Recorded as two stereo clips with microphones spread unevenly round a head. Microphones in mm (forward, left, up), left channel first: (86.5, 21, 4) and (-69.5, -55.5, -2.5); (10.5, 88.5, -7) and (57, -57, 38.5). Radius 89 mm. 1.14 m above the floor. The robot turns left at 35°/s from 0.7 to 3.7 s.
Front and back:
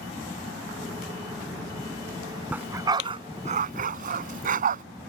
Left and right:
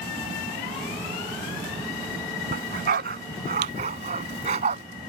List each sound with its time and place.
2.5 s a dog barking: 75° right; by 4.8 s 115° right